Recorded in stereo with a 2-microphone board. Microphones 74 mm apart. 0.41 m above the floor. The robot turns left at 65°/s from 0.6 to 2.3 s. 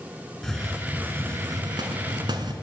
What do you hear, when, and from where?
0.4 s a hiss: 5° left, 1.5 m; by 2.5 s 105° right, 1.5 m